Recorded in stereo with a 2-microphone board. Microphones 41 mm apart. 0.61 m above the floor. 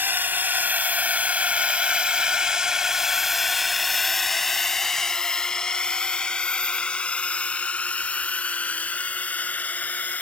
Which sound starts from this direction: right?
A drone, at 0.0 s.